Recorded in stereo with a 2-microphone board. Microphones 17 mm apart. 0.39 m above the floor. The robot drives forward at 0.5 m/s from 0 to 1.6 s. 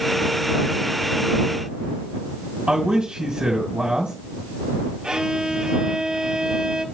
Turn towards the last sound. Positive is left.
turn(degrees=-65)  # may be behind; listen again after turning